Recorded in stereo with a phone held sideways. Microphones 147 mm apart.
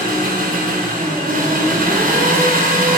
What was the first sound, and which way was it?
An engine running, 85° right.